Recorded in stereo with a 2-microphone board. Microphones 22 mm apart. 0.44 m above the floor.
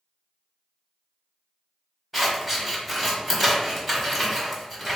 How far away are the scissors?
About 1.1 m.